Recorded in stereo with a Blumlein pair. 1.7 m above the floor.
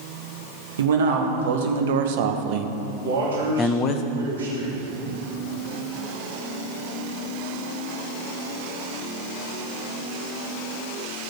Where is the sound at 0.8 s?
65° right, 1.6 m; by 4.0 s 40° left, 0.6 m.